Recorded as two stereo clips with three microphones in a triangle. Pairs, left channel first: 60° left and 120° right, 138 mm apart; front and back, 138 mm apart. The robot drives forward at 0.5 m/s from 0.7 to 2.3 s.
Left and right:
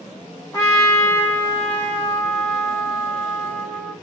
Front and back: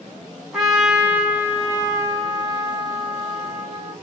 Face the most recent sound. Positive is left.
turn(degrees=140)